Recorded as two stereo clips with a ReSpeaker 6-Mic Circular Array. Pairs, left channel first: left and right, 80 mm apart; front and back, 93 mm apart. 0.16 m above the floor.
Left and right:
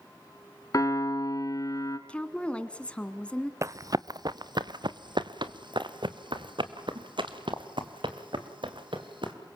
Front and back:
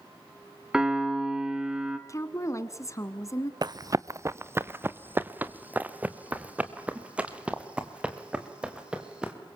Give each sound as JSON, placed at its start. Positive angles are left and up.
{"t": 0.7, "sound": "a piano", "azimuth_deg": 100, "distance_m": 1.4}
{"t": 2.1, "sound": "a woman speaking", "azimuth_deg": 20, "distance_m": 1.5}
{"t": 3.6, "sound": "running footsteps", "azimuth_deg": -140, "distance_m": 0.5}